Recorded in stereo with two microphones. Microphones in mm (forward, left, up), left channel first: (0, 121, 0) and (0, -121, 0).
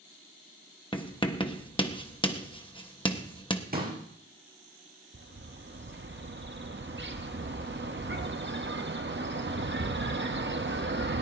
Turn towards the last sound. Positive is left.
turn(degrees=-50)  # may be behind; listen again after turning